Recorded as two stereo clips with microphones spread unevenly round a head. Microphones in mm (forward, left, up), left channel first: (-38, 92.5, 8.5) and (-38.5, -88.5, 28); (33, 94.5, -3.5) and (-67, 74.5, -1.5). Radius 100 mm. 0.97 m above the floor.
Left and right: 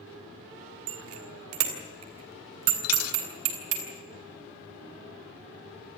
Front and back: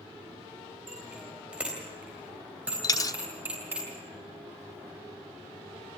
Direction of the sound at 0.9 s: 80° right.